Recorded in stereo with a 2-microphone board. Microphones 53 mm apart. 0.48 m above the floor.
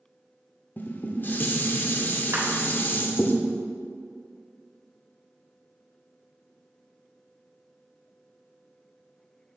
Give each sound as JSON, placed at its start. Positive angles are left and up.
{"t": 0.8, "sound": "dishes clattering", "side_deg": 40, "distance_m": 0.6}
{"t": 2.3, "sound": "a clap", "side_deg": -65, "distance_m": 1.6}